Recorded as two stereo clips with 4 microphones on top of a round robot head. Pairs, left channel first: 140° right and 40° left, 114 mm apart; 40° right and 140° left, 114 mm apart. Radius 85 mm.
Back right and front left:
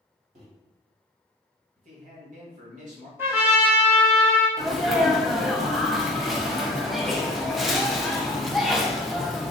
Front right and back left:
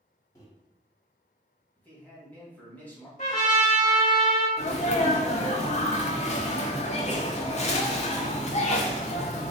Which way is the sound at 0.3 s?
20° left.